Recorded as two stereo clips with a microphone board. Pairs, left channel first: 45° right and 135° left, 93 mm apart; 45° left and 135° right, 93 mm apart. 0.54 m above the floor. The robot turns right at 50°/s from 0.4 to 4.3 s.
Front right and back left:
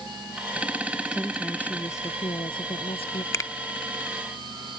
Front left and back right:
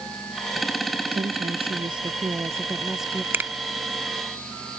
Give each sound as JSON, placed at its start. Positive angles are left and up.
{"t": 1.1, "sound": "a woman speaking", "azimuth_deg": -145}
{"t": 3.3, "sound": "a finger snap", "azimuth_deg": -80}